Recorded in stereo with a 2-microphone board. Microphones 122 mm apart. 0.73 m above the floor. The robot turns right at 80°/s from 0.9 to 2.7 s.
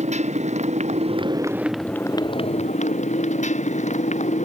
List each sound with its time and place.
0.0 s a motorcycle: 70° right; by 4.5 s 75° left